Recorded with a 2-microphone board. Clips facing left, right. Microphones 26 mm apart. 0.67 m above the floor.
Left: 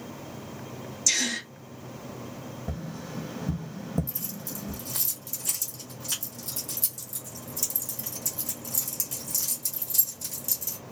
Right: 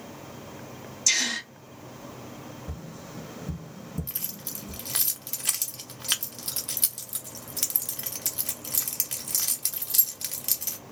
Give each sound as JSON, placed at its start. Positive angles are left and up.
{"t": 1.1, "sound": "a gasp", "side_deg": -20, "distance_m": 1.2}
{"t": 2.7, "sound": "tapping", "side_deg": 45, "distance_m": 0.7}
{"t": 4.1, "sound": "keys jangling", "side_deg": -55, "distance_m": 0.6}